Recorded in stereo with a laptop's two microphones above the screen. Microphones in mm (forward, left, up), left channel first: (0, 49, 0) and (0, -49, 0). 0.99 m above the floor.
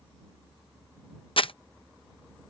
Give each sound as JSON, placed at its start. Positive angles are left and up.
{"t": 1.4, "sound": "crumpling", "side_deg": 65}